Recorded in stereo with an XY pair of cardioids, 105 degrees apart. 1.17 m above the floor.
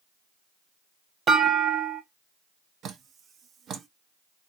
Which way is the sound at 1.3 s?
45° right.